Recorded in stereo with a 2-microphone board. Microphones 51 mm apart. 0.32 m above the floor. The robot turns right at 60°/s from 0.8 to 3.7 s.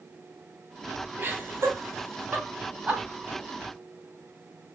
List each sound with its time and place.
1.2 s laughter: 40° right (ahead or behind), 2 m; by 3.0 s 20° right (ahead or behind), 2 m